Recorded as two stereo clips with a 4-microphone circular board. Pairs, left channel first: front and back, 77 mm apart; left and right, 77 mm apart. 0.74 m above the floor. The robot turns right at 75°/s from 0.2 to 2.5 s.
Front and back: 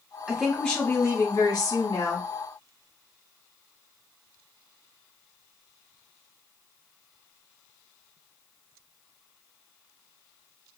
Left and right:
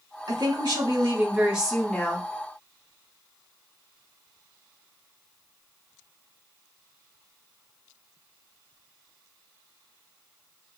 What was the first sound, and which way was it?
A woman speaking, 110° right.